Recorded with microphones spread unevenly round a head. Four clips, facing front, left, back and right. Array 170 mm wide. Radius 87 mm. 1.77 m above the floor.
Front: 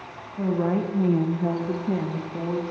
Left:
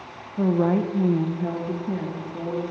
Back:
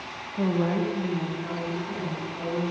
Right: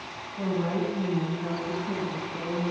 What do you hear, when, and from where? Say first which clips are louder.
0.4 s a woman speaking: left 7 dB, front 1 dB; 120° left, 0.8 m; by 2.7 s 15° left, 2 m